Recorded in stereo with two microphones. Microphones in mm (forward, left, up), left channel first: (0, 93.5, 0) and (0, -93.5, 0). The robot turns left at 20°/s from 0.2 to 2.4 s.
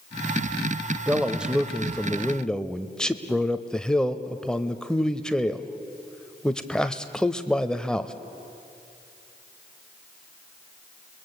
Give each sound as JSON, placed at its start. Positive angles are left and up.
{"t": 1.1, "sound": "a man speaking", "side_deg": -10, "distance_m": 1.0}